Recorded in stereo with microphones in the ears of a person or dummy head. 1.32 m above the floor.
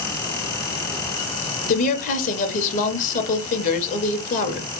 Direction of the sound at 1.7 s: 45° left (ahead or behind).